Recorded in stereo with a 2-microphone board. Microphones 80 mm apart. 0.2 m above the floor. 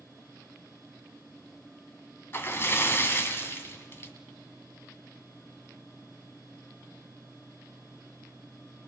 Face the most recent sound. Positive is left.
turn(degrees=30)  # may be behind; listen again after turning